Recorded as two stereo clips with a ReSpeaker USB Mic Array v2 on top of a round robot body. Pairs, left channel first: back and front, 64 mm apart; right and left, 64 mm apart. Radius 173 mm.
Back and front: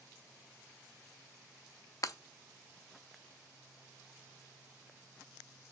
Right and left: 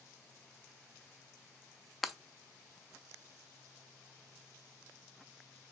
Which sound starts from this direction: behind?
Breaking glass, at 2.0 s.